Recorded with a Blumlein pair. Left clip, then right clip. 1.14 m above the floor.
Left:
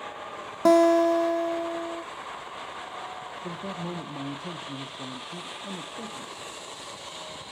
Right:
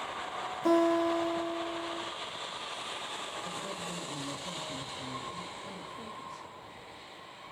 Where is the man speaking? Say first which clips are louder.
Left 3 dB; 30° left, 0.6 m.